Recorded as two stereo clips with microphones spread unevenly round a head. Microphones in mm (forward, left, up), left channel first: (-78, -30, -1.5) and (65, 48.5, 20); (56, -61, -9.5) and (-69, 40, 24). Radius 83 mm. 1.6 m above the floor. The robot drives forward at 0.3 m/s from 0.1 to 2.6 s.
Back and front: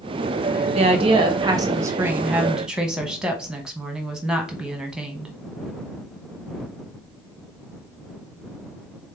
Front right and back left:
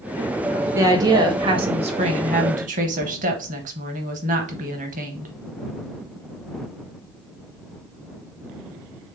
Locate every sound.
0.7 s a woman speaking: 75° left, 1.0 m; by 5.3 s 110° left, 1.0 m